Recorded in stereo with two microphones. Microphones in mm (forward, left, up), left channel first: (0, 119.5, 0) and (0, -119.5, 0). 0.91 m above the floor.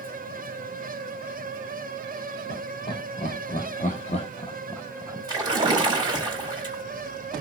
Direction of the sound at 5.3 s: 20° right (ahead or behind).